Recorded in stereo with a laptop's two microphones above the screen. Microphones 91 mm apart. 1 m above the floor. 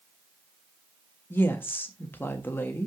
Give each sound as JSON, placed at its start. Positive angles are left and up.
{"t": 1.3, "sound": "a woman speaking", "side_deg": 25, "distance_m": 1.4}